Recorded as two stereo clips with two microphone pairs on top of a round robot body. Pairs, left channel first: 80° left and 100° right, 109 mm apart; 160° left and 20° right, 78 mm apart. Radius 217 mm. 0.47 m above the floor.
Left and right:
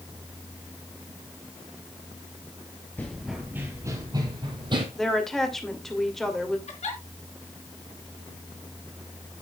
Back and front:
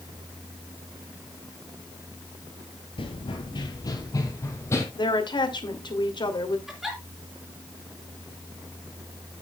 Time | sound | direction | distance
3.0 | running footsteps | 155° left | 0.7 m
5.0 | a woman speaking | 170° left | 2.5 m
6.7 | a giggle | 65° left | 4 m